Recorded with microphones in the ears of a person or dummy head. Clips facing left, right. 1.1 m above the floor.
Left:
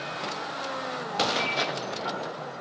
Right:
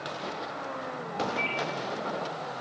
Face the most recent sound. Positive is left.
turn(degrees=15)  # may be behind; listen again after turning